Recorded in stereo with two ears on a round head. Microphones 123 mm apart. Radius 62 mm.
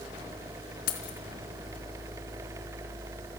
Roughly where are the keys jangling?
Left.